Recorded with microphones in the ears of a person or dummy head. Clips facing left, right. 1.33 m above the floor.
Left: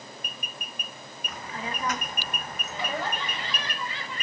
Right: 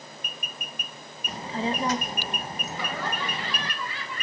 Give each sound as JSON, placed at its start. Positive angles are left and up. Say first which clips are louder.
{"t": 1.3, "sound": "a child speaking", "louder": "right 8 dB", "side_deg": -30, "distance_m": 0.9}
{"t": 2.7, "sound": "laughter", "louder": "left 2 dB", "side_deg": 25, "distance_m": 7.5}